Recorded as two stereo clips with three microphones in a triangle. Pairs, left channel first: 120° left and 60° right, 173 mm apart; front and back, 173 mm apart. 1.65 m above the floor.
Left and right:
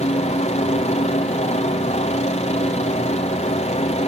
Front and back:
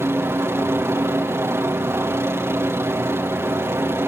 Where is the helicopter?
110° left.